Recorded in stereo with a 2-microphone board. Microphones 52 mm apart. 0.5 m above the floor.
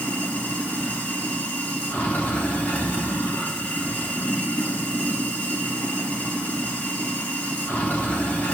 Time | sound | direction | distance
0.0 | running water | 25° left (ahead or behind) | 2.5 m